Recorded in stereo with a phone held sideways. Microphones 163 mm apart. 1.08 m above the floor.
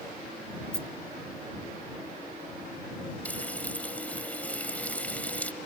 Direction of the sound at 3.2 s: 10° left (ahead or behind).